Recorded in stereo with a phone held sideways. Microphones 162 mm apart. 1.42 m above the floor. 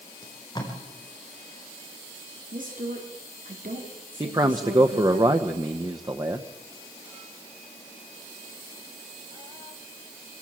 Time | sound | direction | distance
0.2 | tape being pulled | 25° left (ahead or behind) | 5 m
2.5 | a woman speaking | 60° right (ahead or behind) | 3.5 m
4.2 | a man speaking | 25° right (ahead or behind) | 1.0 m